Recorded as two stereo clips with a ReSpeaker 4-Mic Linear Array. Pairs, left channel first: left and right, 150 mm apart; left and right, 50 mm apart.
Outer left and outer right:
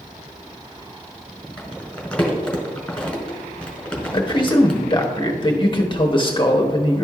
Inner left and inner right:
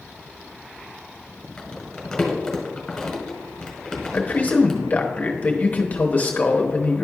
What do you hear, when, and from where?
1.6 s crumpling: 5° left (ahead or behind), 1.5 m
4.1 s a man speaking: 35° left (ahead or behind), 0.9 m